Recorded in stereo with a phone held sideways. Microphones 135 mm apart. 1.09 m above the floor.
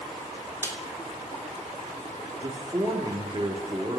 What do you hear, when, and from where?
0.6 s a snare drum: 15° left (ahead or behind), 3 m
2.4 s a man speaking: 30° right (ahead or behind), 2 m